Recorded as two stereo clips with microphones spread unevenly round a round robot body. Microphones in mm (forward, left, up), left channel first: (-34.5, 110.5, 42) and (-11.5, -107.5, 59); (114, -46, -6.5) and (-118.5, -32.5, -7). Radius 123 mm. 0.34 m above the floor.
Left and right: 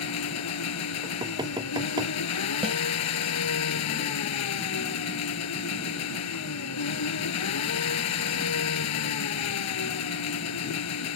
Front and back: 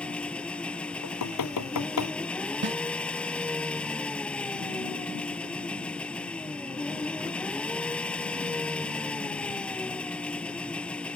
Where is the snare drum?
145° right.